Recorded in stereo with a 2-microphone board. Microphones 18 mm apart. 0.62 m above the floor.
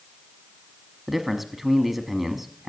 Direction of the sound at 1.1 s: 10° right (ahead or behind).